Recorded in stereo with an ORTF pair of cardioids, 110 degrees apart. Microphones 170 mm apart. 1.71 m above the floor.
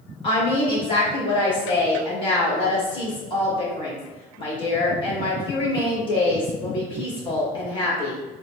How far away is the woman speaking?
About 1.9 m.